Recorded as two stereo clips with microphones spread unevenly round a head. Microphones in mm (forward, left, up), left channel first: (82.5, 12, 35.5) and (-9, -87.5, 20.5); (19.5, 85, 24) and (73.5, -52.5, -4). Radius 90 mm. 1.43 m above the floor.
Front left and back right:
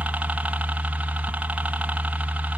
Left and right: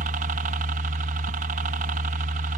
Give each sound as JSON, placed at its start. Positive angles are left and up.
{"t": 0.0, "sound": "a helicopter", "azimuth_deg": -55}